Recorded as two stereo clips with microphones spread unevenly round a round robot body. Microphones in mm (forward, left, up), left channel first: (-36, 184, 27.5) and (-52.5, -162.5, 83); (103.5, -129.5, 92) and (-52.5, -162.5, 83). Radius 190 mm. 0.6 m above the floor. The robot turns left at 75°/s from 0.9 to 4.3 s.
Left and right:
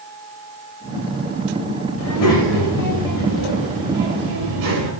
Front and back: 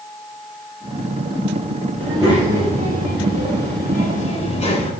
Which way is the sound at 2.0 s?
135° left.